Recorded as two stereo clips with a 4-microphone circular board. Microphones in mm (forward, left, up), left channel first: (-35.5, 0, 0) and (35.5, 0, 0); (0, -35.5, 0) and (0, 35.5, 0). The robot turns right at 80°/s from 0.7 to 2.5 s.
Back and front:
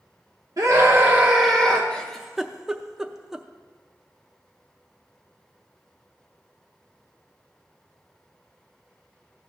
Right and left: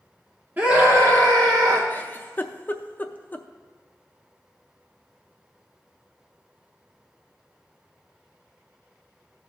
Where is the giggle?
120° right, 0.5 m; by 3.5 s 70° right, 0.5 m.